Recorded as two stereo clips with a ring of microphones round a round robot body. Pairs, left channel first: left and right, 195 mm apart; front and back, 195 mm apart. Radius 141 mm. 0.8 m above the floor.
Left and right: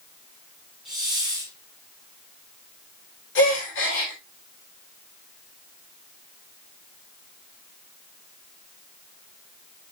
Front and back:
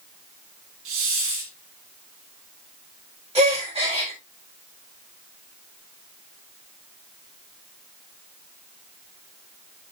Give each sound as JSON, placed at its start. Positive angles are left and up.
{"t": 0.8, "sound": "a hiss", "azimuth_deg": 180, "distance_m": 1.5}
{"t": 3.4, "sound": "a gasp", "azimuth_deg": 120, "distance_m": 3.5}